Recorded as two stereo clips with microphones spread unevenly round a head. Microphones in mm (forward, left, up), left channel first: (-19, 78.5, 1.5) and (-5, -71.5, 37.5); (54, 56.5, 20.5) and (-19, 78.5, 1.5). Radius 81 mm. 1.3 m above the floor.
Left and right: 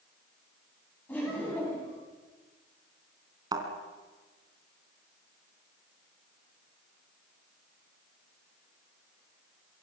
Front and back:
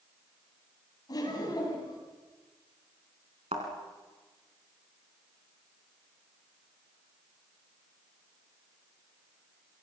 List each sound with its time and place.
1.1 s laughter: 15° left, 10 m
3.5 s a thud: 145° right, 3.5 m